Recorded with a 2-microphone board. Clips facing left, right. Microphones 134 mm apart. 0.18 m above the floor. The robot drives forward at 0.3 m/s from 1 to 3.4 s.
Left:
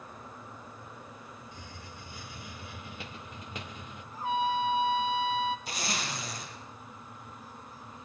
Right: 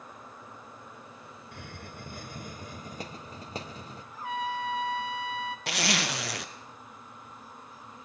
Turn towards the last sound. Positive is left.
turn(degrees=-75)  # may be behind; listen again after turning